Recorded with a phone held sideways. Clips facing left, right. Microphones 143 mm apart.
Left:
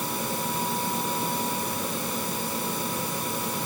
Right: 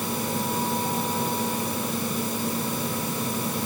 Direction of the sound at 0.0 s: 80° right.